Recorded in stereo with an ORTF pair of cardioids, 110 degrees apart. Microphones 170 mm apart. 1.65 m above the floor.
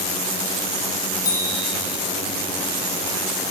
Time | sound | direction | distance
1.2 | a bicycle bell | 20° left | 6.5 m